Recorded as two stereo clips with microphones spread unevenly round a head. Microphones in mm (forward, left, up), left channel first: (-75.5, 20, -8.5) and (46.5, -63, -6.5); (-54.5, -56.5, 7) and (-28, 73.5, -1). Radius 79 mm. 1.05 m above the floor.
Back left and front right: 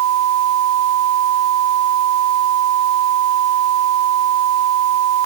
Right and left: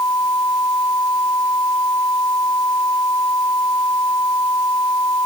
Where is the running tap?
No running tap in this recording.